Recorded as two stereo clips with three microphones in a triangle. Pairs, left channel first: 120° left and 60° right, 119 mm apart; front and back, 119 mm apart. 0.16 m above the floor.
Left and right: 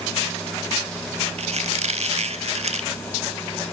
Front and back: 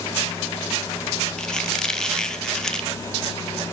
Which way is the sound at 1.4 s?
85° right.